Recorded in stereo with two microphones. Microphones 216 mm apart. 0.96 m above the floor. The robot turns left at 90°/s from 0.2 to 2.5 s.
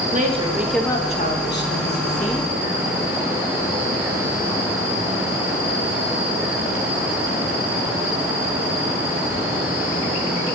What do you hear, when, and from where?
0.1 s a woman speaking: 135° right, 1.4 m; by 2.5 s 20° left, 1.4 m